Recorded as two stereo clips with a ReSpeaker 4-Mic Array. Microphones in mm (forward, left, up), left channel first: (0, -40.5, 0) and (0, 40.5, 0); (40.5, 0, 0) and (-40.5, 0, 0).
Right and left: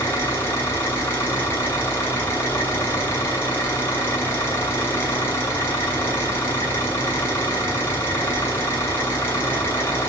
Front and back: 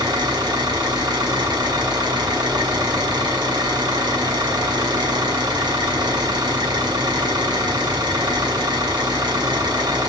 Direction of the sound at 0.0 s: 150° right.